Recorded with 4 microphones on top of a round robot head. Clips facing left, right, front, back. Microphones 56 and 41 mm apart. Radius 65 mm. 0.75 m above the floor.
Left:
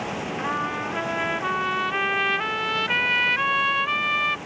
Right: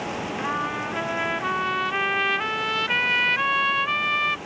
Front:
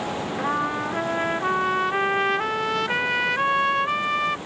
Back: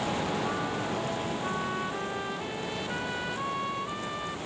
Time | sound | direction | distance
0.4 | a trumpet | straight ahead | ?